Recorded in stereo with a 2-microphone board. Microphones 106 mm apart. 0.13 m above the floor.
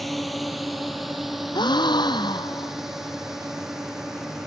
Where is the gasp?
45° left (ahead or behind).